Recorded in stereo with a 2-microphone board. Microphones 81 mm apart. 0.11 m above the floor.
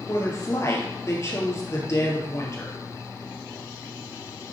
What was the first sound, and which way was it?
A woman speaking, 35° left (ahead or behind).